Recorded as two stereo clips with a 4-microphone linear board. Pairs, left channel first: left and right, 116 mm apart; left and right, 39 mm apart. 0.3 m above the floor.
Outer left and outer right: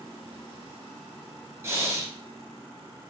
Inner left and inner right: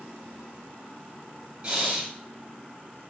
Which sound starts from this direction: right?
Breathing, at 1.6 s.